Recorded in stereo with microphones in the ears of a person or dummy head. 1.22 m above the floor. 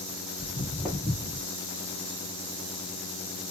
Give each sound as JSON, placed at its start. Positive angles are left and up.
{"t": 0.4, "sound": "footsteps", "side_deg": 10, "distance_m": 1.4}